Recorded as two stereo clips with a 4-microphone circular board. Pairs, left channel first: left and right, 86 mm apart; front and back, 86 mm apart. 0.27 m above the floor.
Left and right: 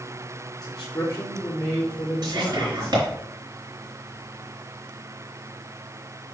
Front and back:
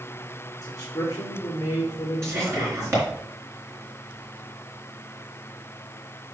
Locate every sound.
0.6 s a man speaking: 50° left, 4 m
2.2 s whispering: 125° right, 3.5 m